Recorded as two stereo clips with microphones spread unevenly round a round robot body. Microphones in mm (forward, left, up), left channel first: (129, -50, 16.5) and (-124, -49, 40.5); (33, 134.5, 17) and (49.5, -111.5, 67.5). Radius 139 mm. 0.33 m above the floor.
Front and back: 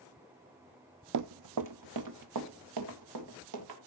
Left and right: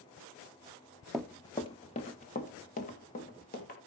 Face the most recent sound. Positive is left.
turn(degrees=155)